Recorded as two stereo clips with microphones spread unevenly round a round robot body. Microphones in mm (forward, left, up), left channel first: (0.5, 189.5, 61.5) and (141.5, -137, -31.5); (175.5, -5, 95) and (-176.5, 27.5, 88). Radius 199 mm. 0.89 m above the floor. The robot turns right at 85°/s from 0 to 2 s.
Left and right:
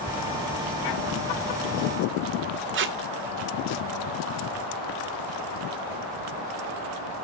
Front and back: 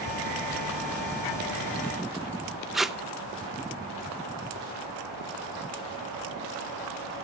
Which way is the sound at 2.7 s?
95° right.